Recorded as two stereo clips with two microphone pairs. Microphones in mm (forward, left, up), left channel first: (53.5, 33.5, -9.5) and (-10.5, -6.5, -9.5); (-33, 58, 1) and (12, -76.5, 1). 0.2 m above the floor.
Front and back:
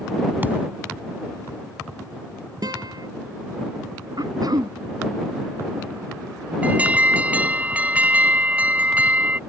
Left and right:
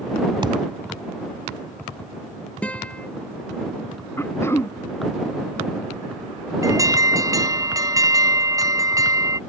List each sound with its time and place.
0.4 s a thud: 100° right
2.6 s a guitar: 170° right
4.2 s throat clearing: straight behind
6.6 s an alarm: 100° right